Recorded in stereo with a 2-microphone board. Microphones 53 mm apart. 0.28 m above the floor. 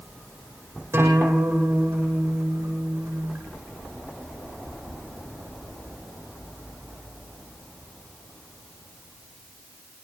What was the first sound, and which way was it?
A guitar, 55° right (ahead or behind).